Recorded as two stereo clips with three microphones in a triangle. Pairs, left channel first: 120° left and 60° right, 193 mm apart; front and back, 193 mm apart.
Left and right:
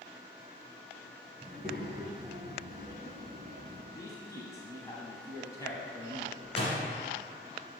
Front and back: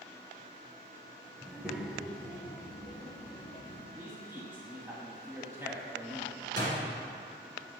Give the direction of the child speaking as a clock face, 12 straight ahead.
4 o'clock.